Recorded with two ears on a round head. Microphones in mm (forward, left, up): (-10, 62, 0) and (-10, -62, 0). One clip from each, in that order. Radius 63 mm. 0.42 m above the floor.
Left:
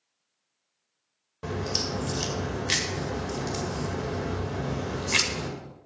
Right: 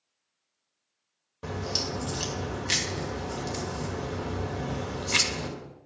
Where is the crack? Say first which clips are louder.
Left 1 dB; 5° left (ahead or behind), 1.7 m.